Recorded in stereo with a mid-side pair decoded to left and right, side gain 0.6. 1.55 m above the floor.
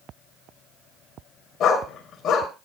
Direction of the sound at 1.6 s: 50° left.